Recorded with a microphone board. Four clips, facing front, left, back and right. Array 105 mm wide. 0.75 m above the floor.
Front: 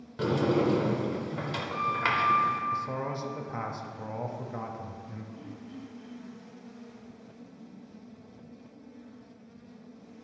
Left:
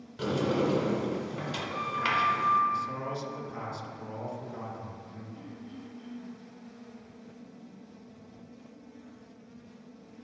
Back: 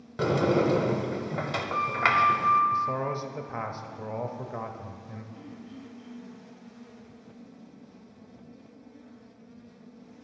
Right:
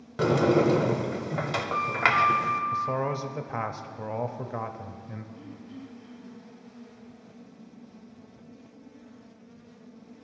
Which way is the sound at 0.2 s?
115° right.